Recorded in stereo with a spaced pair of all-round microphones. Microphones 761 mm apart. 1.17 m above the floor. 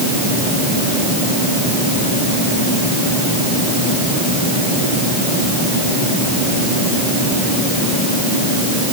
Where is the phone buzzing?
I don't hear a phone buzzing.